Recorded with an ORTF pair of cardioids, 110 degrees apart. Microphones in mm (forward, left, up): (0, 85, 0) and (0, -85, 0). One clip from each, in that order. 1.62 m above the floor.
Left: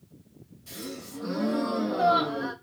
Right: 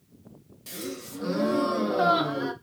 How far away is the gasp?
About 1.5 m.